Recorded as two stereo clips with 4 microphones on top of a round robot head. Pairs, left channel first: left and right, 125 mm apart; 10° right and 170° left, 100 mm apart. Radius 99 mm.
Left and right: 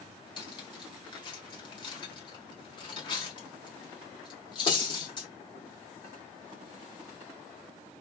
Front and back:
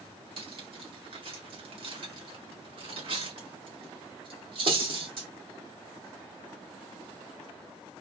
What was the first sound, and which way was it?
Cutlery clinking, 140° left.